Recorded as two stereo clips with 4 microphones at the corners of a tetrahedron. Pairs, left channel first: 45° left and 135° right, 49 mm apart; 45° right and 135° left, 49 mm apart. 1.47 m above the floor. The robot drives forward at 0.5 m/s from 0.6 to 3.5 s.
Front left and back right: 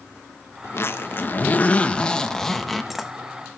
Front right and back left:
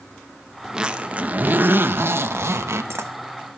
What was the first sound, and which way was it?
A zipper, 60° left.